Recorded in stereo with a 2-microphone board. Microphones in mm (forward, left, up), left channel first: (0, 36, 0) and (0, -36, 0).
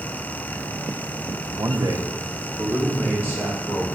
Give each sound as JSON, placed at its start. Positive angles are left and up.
{"t": 1.6, "sound": "a man speaking", "side_deg": -60, "distance_m": 0.9}